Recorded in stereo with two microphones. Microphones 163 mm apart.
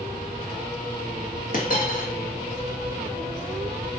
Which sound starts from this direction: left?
A dropped coin, at 1.5 s.